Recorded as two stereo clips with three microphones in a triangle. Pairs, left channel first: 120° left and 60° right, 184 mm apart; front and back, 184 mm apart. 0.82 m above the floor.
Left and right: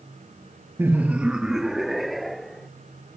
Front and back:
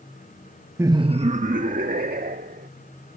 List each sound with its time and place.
0.8 s laughter: 120° right; by 2.7 s 150° right